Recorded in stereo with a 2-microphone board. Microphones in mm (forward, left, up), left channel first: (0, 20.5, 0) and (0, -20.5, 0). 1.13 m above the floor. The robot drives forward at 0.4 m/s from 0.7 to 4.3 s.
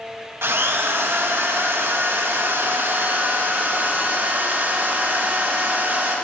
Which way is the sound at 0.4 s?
75° right (ahead or behind).